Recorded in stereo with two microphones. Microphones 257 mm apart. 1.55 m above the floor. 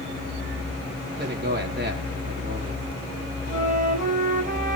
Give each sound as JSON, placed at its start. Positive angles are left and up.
{"t": 1.2, "sound": "a man speaking", "side_deg": -40, "distance_m": 3.5}
{"t": 3.5, "sound": "a flute", "side_deg": -30, "distance_m": 3.0}